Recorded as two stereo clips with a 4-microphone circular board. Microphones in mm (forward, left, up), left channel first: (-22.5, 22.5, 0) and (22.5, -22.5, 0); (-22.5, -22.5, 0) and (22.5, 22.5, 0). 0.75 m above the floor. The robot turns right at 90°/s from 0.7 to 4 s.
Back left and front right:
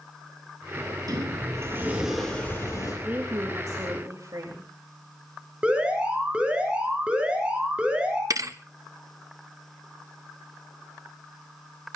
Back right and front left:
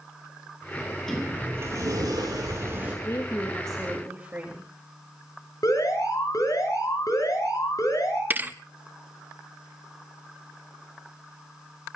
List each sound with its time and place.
0.8 s a sliding door: 80° right, 8.5 m; by 2.9 s 115° left, 8.5 m
3.0 s a woman speaking: 110° right, 3 m; by 4.7 s 25° right, 3 m
5.6 s an alarm: 115° right, 6 m
8.3 s a thud: 15° right, 0.8 m